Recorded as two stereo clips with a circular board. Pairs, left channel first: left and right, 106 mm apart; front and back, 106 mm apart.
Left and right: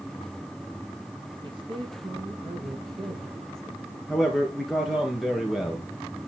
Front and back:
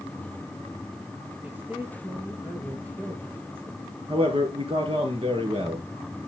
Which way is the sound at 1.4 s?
110° right.